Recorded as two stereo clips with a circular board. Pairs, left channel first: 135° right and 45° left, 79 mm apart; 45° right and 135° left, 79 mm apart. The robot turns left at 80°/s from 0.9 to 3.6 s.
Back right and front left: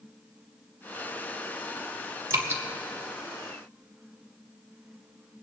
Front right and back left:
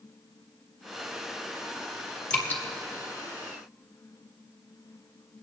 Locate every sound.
2.3 s dripping: 25° left, 1.7 m; by 2.6 s straight ahead, 1.7 m